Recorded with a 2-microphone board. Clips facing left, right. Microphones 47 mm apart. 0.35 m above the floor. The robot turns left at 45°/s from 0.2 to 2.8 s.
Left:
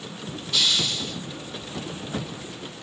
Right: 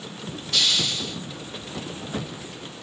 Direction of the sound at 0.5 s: 55° right (ahead or behind).